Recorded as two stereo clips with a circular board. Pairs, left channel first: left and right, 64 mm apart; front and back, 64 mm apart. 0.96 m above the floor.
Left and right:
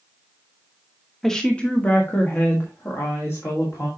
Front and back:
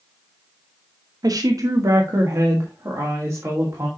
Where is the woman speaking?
175° left, 0.9 m; by 3.9 s 130° left, 2.5 m.